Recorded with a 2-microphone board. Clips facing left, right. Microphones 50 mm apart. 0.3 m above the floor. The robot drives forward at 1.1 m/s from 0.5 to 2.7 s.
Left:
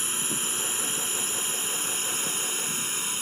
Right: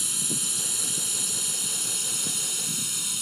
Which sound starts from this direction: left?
A drone, at 0.0 s.